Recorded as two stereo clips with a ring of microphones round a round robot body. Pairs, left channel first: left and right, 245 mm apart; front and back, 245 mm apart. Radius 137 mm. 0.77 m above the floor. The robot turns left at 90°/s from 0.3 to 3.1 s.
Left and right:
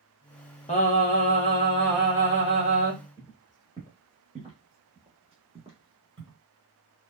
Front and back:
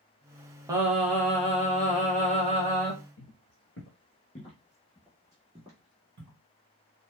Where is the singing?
120° left, 0.9 m; by 2.9 s 85° right, 0.9 m.